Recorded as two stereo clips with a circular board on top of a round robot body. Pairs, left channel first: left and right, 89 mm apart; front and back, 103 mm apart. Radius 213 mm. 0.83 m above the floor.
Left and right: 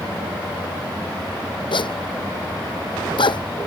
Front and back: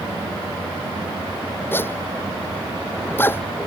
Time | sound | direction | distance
1.7 | a zipper | 70° left | ?